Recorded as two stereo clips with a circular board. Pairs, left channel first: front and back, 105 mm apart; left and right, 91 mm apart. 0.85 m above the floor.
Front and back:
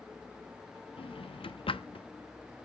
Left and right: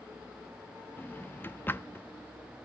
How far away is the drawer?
About 0.6 m.